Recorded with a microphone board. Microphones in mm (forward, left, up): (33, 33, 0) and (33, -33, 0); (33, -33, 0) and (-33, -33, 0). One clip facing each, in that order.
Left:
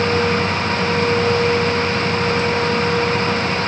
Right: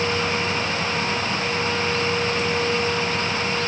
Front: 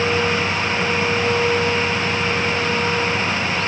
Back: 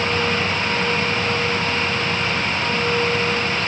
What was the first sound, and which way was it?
Only background noise.